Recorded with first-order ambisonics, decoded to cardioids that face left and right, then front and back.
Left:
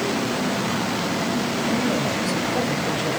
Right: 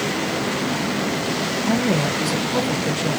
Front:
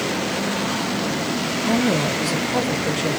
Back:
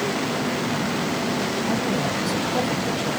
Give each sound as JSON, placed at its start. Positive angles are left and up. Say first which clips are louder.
{"t": 1.7, "sound": "a woman speaking", "louder": "right 3 dB, front 3 dB", "azimuth_deg": -30, "distance_m": 1.4}